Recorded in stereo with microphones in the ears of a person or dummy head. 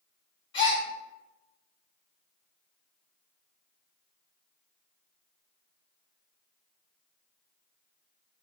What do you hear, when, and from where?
0.5 s a gasp: 30° left (ahead or behind), 1.8 m